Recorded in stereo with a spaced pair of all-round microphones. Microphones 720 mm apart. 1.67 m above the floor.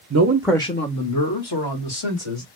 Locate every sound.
0.1 s a man speaking: 25° right (ahead or behind), 0.6 m; by 2.5 s 45° left (ahead or behind), 2.0 m